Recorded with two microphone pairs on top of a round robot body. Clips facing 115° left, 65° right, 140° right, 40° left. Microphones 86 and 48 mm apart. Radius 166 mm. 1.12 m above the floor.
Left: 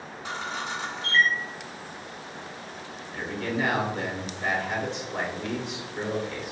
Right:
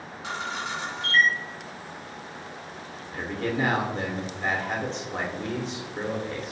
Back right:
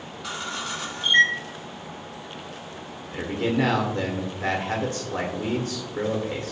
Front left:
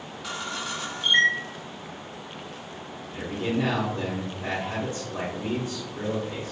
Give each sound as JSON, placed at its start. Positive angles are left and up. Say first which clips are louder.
{"t": 0.2, "sound": "a camera shutter", "louder": "right 1 dB, back right 1 dB", "azimuth_deg": -50, "distance_m": 1.5}
{"t": 3.1, "sound": "a man speaking", "louder": "right 1 dB, back right 3 dB", "azimuth_deg": -125, "distance_m": 0.8}